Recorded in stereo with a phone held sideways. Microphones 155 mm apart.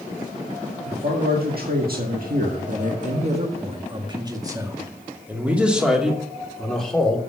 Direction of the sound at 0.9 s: 80° right.